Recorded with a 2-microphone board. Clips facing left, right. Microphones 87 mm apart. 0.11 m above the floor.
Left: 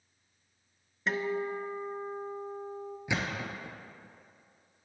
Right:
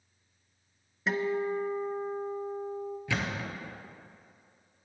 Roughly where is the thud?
Centre.